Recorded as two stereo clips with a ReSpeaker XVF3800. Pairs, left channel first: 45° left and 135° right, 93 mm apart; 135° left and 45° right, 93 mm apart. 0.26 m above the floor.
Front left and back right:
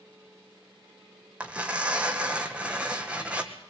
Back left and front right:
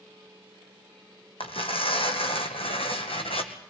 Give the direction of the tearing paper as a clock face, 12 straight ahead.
7 o'clock.